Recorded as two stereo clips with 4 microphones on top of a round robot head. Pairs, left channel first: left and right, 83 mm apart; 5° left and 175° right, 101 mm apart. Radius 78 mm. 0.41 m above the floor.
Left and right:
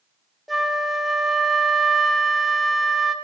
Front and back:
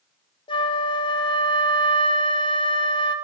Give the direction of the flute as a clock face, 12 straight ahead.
12 o'clock.